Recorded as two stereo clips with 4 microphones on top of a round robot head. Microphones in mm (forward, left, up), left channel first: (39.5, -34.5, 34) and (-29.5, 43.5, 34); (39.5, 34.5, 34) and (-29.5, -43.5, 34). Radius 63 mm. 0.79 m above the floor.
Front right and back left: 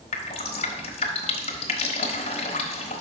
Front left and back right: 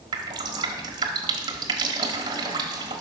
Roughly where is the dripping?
Right.